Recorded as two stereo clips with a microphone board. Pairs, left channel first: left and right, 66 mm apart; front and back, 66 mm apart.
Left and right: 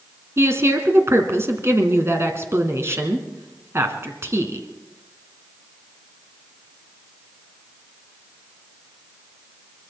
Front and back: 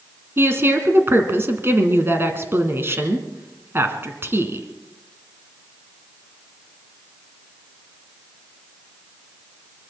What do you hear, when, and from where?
0.4 s a woman speaking: 130° right, 2 m